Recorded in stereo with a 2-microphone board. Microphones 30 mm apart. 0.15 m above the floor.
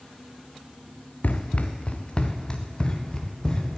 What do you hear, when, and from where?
1.2 s running footsteps: 50° left (ahead or behind), 0.9 m; by 3.8 s 15° left (ahead or behind), 2.5 m